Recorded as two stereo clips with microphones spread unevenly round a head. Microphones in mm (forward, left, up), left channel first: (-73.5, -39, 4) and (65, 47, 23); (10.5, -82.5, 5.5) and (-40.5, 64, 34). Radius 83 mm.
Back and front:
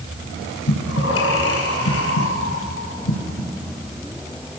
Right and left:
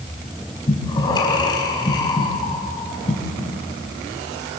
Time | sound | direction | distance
0.7 | breathing | 135° right | 5 m